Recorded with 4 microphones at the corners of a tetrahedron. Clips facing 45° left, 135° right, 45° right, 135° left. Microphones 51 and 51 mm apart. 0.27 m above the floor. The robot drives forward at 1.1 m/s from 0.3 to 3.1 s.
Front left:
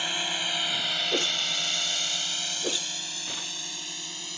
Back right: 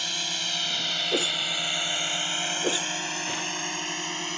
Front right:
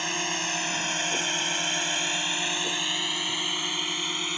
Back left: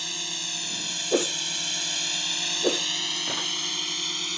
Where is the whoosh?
135° left; by 3.5 s 150° left.